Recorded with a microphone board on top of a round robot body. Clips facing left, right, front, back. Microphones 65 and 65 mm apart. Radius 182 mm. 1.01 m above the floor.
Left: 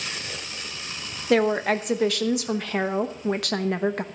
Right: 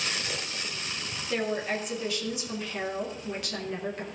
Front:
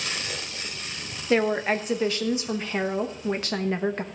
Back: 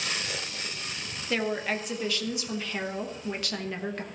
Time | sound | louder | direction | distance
1.3 | a woman speaking | left 9 dB, front 7 dB | 65° left | 1.1 m